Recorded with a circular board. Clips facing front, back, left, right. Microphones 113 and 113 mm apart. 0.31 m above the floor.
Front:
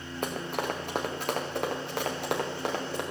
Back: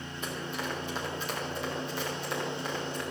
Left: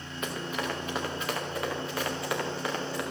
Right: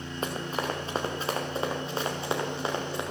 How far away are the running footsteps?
About 3 m.